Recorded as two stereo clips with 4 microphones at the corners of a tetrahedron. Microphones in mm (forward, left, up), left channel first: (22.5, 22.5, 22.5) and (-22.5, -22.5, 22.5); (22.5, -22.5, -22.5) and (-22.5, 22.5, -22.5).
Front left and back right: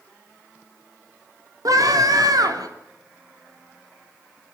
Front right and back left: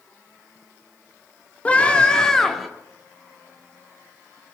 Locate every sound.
1.6 s a scream: 115° right, 3.5 m; by 2.7 s 135° right, 3 m